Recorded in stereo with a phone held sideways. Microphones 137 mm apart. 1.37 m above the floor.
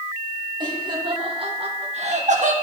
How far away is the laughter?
About 2 m.